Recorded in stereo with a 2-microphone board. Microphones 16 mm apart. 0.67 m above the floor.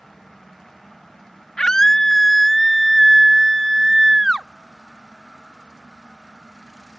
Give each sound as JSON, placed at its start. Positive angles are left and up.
{"t": 1.6, "sound": "a scream", "side_deg": 40}